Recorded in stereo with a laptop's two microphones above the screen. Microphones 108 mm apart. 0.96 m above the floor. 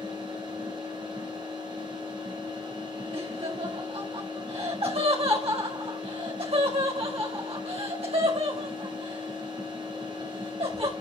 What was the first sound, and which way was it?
A machine running, 45° right (ahead or behind).